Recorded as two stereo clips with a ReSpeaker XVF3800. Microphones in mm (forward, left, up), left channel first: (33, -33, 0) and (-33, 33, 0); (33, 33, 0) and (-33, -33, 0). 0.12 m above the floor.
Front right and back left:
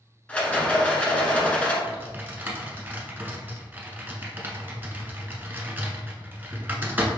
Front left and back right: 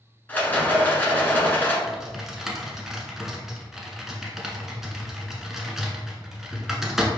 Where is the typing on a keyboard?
145° left, 0.8 m.